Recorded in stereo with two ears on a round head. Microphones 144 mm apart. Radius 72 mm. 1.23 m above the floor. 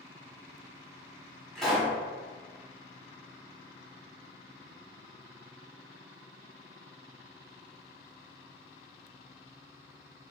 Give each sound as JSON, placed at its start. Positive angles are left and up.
{"t": 1.6, "sound": "a pop", "side_deg": 5, "distance_m": 1.4}